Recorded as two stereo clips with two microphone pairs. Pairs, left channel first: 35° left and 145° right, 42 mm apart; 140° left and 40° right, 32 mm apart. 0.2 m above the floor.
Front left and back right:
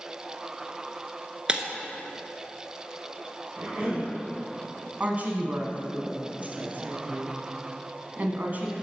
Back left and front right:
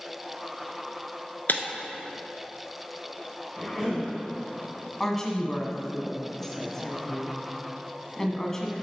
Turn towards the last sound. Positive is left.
turn(degrees=-150)